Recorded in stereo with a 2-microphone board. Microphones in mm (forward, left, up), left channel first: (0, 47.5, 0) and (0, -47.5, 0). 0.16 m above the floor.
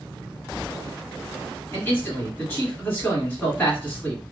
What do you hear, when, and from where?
1.7 s a man speaking: 20° left (ahead or behind), 1.7 m